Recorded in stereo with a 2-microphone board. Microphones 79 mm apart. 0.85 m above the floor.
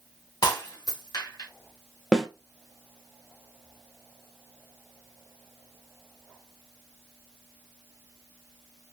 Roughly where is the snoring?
I don't hear snoring.